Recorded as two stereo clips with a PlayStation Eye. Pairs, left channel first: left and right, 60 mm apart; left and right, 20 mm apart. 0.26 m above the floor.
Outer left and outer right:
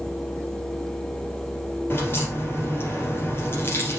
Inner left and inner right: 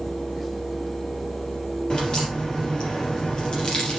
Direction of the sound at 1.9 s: 40° left (ahead or behind).